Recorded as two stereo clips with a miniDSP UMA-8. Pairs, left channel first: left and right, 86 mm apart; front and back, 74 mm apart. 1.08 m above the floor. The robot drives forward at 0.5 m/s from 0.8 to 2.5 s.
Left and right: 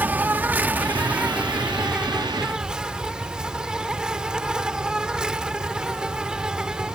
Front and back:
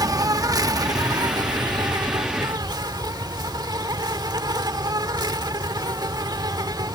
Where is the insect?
155° right; by 7.0 s 170° right.